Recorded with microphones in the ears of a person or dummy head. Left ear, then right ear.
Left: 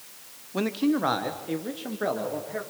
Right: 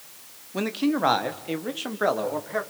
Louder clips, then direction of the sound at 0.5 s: Even; 5° right (ahead or behind).